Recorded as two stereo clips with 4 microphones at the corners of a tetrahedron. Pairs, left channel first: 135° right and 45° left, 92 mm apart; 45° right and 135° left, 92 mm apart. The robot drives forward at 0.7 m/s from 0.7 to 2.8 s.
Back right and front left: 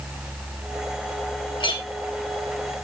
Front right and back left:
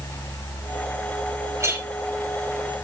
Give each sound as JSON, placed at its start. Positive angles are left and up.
{"t": 1.6, "sound": "a clink", "azimuth_deg": -165, "distance_m": 4.0}